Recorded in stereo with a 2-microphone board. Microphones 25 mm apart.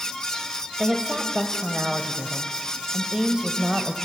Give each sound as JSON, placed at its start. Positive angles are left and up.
{"t": 0.8, "sound": "a woman speaking", "side_deg": -30, "distance_m": 1.1}